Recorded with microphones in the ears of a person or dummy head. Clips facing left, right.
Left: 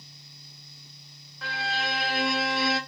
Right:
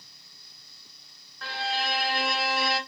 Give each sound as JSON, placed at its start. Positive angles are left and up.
{"t": 1.4, "sound": "a violin", "side_deg": 0, "distance_m": 0.6}